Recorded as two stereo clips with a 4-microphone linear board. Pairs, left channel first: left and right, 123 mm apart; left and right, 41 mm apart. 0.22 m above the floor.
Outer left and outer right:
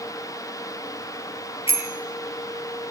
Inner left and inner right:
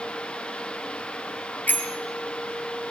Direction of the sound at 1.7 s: 45° left (ahead or behind).